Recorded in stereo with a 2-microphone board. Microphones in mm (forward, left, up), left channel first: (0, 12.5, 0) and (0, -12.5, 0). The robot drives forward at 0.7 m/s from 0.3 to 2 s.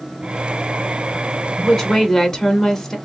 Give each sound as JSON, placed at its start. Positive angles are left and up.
{"t": 1.6, "sound": "a woman speaking", "side_deg": 20, "distance_m": 1.0}